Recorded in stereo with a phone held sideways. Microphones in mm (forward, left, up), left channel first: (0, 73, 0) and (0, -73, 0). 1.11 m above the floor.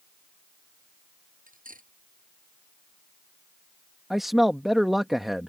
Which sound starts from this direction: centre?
A man speaking, at 4.1 s.